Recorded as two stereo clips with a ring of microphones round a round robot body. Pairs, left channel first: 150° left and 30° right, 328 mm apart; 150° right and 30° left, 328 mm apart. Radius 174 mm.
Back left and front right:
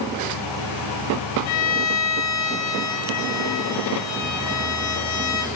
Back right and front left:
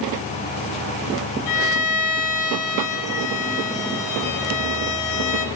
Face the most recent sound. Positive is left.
turn(degrees=-175)